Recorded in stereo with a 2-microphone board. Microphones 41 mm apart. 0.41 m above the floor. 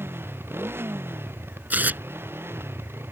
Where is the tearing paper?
50° right (ahead or behind).